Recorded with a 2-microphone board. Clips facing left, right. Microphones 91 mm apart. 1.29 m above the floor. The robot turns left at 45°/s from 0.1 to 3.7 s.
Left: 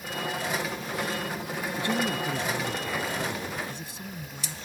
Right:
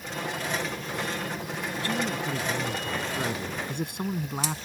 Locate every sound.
1.8 s a man speaking: 25° left; by 4.7 s 60° right